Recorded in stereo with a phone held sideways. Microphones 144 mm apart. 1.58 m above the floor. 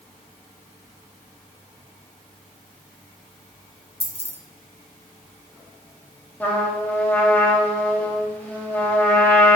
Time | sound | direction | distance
4.0 | keys jangling | 45° left (ahead or behind) | 0.8 m
6.4 | a trumpet | 10° left (ahead or behind) | 1.2 m